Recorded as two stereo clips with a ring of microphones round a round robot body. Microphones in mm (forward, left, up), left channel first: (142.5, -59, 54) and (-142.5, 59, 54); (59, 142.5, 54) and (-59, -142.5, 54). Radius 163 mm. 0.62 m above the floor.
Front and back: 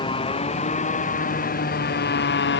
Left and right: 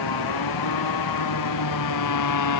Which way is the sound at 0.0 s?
50° left.